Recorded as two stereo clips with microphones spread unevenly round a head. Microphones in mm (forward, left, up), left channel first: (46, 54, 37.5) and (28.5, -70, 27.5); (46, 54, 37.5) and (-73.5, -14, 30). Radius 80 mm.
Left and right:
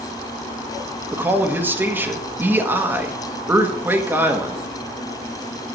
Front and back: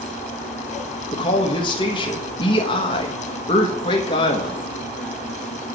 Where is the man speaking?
25° right, 1.3 m.